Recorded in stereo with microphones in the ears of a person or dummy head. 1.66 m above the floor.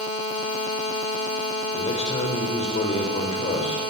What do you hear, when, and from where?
1.7 s a man speaking: 35° left (ahead or behind), 5 m